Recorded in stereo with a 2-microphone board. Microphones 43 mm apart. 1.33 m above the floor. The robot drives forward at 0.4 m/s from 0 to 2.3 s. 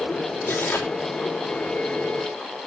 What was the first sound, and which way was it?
Tearing paper, 60° left (ahead or behind).